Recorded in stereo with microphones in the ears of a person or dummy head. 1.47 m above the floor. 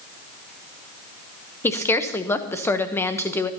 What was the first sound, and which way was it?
A woman speaking, 15° left (ahead or behind).